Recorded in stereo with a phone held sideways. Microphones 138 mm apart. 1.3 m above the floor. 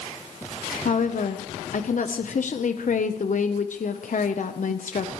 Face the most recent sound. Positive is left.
turn(degrees=65)  # may be behind; listen again after turning